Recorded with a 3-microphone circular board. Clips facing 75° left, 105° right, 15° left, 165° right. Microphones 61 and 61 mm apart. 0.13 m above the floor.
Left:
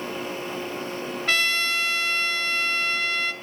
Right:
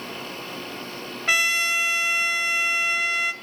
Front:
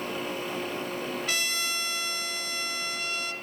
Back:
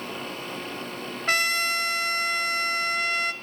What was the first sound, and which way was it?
A trumpet, straight behind.